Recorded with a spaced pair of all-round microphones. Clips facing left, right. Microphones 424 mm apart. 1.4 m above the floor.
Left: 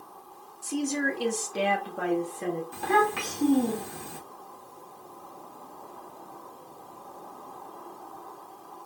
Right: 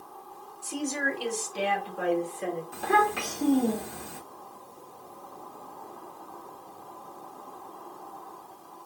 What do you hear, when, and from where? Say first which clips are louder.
0.6 s a woman speaking: left 3 dB; 35° left (ahead or behind), 0.7 m; by 2.6 s 55° left (ahead or behind), 1.2 m
2.7 s a child speaking: left 1 dB; 15° left (ahead or behind), 1.1 m